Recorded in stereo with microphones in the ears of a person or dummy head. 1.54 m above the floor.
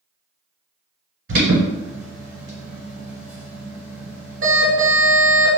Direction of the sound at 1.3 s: 55° right (ahead or behind).